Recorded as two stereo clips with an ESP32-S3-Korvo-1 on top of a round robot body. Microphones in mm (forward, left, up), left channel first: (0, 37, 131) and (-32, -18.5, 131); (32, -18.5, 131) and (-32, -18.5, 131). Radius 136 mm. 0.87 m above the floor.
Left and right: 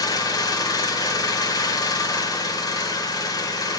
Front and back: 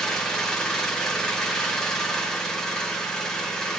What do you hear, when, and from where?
0.0 s an engine running: 85° left, 1.4 m